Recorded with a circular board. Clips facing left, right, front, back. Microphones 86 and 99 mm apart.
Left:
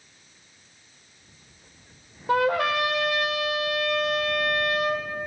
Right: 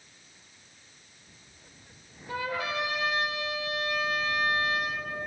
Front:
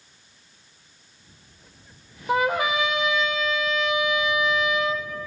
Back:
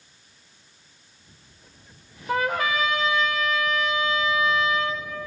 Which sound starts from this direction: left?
A trumpet, at 2.3 s.